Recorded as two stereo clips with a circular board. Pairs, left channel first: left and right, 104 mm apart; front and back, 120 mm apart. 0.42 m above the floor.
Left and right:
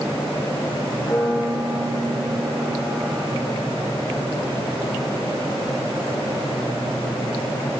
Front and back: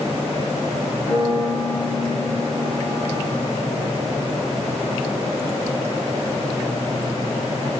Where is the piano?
35° left, 3 m.